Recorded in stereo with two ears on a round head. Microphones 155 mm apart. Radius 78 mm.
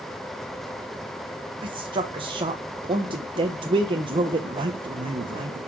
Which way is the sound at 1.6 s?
30° right (ahead or behind).